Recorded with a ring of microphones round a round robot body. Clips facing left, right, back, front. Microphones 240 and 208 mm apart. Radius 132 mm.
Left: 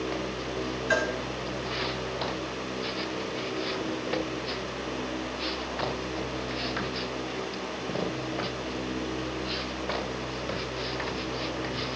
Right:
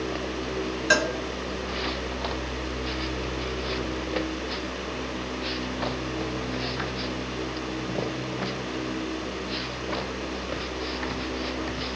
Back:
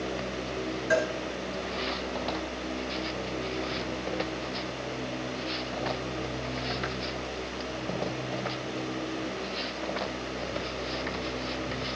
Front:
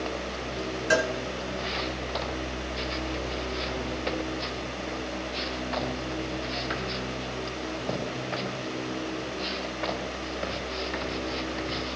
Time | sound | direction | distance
0.9 | a cowbell | 55° right | 0.7 m